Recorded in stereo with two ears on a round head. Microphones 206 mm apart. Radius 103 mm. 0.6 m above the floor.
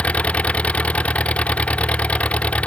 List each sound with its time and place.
0.0 s an engine running: 5° left (ahead or behind)